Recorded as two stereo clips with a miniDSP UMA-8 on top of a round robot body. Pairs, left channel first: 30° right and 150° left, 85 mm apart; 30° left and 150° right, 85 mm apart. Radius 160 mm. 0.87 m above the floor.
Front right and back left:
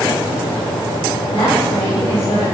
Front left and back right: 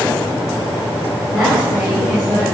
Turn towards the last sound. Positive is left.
turn(degrees=-65)